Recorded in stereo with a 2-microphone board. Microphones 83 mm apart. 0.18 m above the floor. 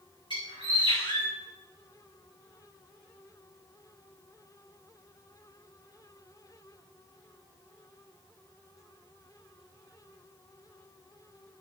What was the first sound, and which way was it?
A bird, 70° left (ahead or behind).